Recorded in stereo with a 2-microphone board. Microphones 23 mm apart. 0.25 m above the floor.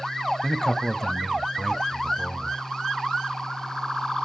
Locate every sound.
0.4 s a man speaking: 20° left (ahead or behind), 1.1 m